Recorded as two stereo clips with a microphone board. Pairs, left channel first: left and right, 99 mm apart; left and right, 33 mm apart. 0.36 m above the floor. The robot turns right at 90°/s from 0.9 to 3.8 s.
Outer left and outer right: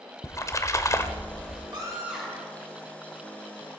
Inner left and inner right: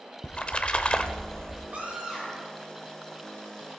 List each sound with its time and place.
0.2 s a splash: 125° left, 0.8 m; by 1.6 s 175° right, 0.8 m
1.7 s a scream: 50° right, 5 m; by 2.5 s 25° left, 5 m